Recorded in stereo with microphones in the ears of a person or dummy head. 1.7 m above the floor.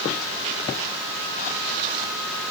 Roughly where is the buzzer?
No buzzer in this recording.